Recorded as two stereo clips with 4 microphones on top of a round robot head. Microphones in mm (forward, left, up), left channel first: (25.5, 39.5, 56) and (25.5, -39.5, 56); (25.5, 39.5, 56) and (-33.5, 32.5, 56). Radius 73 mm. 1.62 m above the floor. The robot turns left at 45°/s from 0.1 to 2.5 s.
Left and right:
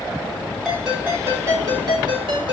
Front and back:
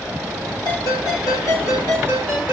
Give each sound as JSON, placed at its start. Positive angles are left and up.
{"t": 0.7, "sound": "a ringtone", "azimuth_deg": 5, "distance_m": 5.0}